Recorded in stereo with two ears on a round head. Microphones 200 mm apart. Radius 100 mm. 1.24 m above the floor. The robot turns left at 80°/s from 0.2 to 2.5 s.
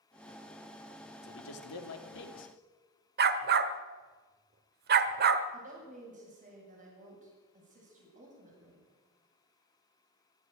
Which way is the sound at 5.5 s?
35° right (ahead or behind).